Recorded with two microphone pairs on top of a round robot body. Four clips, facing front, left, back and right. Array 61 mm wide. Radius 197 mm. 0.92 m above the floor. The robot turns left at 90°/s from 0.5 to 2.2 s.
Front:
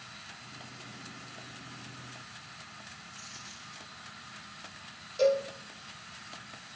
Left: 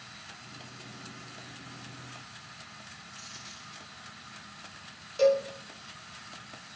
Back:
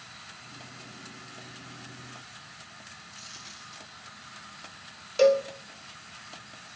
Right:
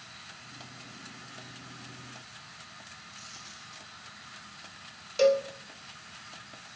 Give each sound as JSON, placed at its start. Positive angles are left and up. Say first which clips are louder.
{"t": 3.1, "sound": "a dropped coin", "louder": "left 1 dB, back 1 dB", "azimuth_deg": 170, "distance_m": 3.0}
{"t": 5.2, "sound": "a cowbell", "louder": "even, back 5 dB", "azimuth_deg": -150, "distance_m": 1.1}